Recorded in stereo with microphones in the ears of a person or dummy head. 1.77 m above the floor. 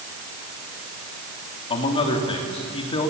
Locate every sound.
1.7 s a man speaking: 35° left (ahead or behind), 3.5 m